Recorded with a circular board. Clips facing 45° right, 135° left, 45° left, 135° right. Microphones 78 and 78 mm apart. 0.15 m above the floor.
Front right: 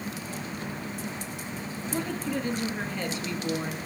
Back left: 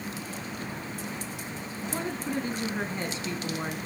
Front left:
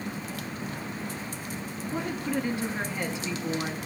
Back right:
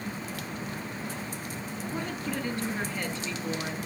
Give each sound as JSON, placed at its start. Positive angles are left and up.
{"t": 1.9, "sound": "a woman speaking", "azimuth_deg": 105, "distance_m": 1.7}